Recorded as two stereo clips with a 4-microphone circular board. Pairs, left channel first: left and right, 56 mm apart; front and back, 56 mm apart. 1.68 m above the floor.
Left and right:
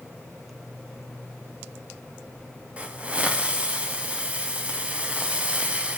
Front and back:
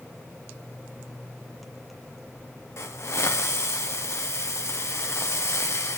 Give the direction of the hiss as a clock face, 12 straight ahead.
1 o'clock.